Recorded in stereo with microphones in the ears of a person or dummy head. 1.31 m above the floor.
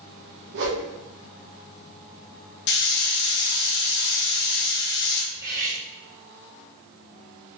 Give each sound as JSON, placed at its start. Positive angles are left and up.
{"t": 0.5, "sound": "a whoosh", "side_deg": -60, "distance_m": 1.0}
{"t": 2.7, "sound": "a hiss", "side_deg": 65, "distance_m": 0.8}
{"t": 5.3, "sound": "cutlery clinking", "side_deg": -10, "distance_m": 1.1}